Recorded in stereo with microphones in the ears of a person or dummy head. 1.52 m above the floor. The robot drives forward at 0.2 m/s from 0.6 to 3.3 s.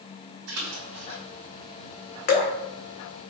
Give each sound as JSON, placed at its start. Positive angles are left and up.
{"t": 0.5, "sound": "a splash", "side_deg": -70, "distance_m": 1.6}
{"t": 2.3, "sound": "dripping", "side_deg": 45, "distance_m": 0.9}